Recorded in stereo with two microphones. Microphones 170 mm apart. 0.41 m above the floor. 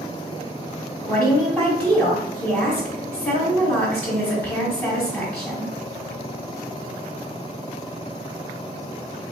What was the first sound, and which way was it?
A woman speaking, 5° left (ahead or behind).